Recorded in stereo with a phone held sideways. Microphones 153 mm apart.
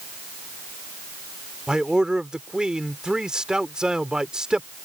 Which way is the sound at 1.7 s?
5° right (ahead or behind).